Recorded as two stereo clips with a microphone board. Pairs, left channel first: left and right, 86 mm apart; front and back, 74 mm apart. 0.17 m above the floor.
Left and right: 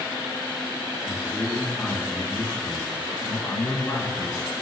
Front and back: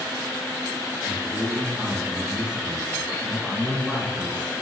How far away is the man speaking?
About 1.6 m.